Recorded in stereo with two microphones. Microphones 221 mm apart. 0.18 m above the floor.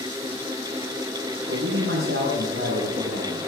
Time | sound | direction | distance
1.5 | a man speaking | 75° right (ahead or behind) | 6.5 m